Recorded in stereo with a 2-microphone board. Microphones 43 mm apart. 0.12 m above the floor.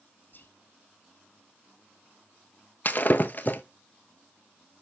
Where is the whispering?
50° left (ahead or behind), 2 m.